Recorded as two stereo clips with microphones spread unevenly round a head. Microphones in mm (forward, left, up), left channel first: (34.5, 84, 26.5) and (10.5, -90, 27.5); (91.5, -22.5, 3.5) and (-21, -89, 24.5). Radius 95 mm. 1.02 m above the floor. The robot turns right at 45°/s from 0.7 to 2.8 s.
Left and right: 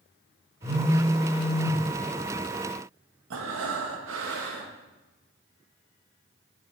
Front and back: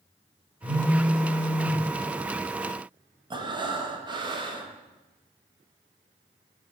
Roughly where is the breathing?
Right.